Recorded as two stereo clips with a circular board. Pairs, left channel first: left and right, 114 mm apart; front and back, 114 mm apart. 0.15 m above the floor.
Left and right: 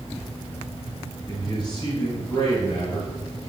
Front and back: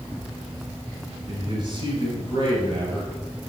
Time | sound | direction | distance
1.3 | a man speaking | 140° left | 3.5 m